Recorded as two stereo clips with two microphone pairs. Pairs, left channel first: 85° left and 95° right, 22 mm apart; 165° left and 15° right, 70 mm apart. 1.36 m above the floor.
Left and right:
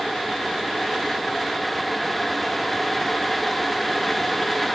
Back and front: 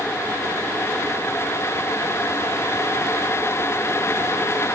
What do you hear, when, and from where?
Only background noise.